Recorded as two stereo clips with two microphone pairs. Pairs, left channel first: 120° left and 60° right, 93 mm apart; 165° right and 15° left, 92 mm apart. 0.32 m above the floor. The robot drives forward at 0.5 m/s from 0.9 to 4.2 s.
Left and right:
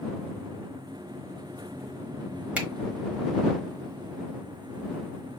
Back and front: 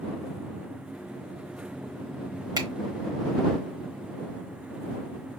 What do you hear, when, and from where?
2.6 s a finger snap: 10° left, 1.0 m